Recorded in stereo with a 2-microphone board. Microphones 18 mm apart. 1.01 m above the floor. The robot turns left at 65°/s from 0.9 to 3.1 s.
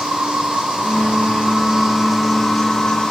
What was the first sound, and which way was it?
An insect, 90° right.